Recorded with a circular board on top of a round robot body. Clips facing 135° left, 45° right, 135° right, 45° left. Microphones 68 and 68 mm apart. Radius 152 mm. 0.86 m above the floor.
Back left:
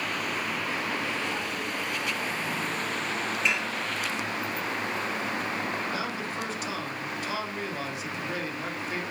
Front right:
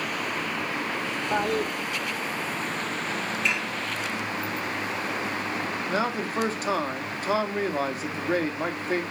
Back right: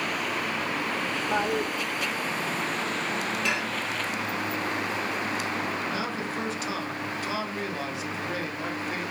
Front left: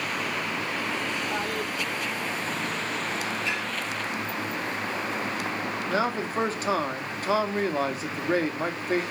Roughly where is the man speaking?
Ahead.